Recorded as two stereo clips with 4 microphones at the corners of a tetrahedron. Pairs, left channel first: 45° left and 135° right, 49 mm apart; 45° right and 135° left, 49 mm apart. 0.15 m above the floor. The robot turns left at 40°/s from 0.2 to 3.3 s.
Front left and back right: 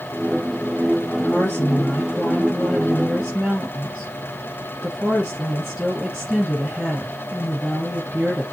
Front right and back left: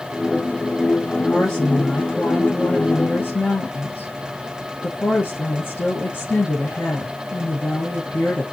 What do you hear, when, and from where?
1.2 s a woman speaking: 35° left, 1.8 m; by 8.4 s 50° right, 1.8 m